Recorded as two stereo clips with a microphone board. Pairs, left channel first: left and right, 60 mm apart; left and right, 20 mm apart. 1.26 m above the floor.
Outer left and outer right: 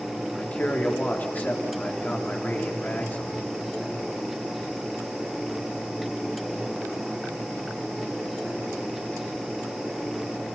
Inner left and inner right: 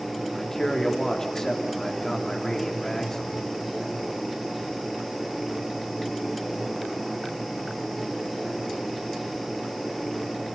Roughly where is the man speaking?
Left.